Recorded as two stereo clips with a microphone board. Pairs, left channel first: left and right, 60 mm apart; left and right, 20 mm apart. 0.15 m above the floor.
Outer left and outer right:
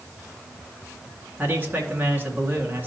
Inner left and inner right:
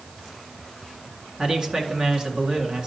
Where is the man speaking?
30° right (ahead or behind), 2 m.